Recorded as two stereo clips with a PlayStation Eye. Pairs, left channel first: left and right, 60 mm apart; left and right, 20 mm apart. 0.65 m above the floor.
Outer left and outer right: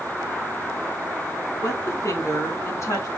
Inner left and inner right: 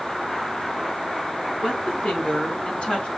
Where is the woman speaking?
65° left (ahead or behind), 5 m; by 3.1 s 60° left (ahead or behind), 5 m.